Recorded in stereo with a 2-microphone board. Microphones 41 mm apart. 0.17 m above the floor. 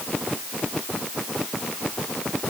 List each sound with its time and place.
Only background noise.